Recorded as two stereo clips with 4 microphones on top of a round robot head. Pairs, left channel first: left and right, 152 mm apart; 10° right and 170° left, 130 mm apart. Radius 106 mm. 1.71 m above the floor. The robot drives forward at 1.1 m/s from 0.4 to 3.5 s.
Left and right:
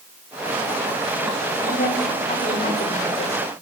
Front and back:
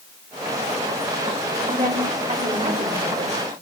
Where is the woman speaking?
125° left, 6 m; by 3.5 s 140° left, 7.5 m.